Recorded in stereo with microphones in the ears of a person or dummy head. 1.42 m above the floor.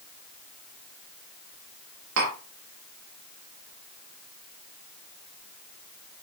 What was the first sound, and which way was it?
Tapping, 75° right (ahead or behind).